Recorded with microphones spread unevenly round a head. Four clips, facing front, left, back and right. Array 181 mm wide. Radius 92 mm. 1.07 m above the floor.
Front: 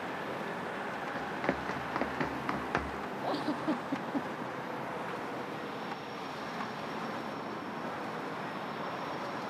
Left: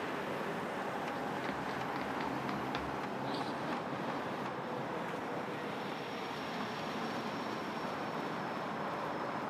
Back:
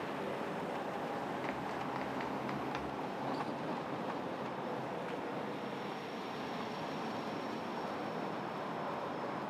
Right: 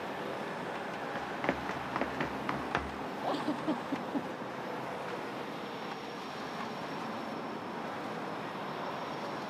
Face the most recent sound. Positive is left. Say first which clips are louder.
# right 9 dB, front 9 dB
turn(degrees=-40)